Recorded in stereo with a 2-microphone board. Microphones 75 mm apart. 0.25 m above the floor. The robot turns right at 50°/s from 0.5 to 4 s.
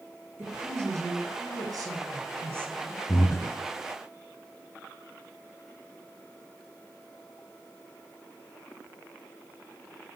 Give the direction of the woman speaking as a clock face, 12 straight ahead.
5 o'clock.